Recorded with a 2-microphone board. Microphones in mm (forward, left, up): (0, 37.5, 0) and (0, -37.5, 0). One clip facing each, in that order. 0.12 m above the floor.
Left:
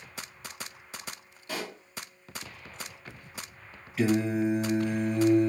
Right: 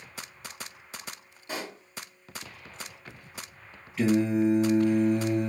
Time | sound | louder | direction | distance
1.5 | a pop | even | 20° right (ahead or behind) | 1.7 m
4.0 | singing | right 2 dB | 10° left (ahead or behind) | 2.5 m